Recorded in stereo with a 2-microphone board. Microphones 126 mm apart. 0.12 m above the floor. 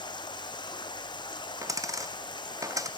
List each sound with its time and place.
0.0 s running water: 35° left (ahead or behind), 1.3 m
1.6 s a dropped coin: 25° right (ahead or behind), 0.9 m